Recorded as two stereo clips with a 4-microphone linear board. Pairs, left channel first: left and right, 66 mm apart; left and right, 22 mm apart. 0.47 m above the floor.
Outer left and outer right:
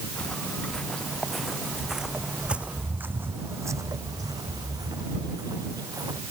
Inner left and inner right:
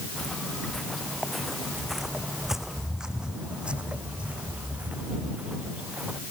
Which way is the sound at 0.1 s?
15° left (ahead or behind).